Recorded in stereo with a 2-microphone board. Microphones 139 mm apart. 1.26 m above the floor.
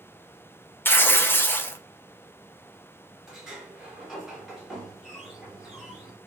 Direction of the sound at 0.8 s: 15° left (ahead or behind).